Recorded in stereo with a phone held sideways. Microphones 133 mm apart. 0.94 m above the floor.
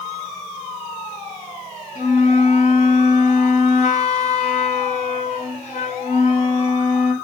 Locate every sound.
1.9 s a flute: 60° left (ahead or behind), 1.3 m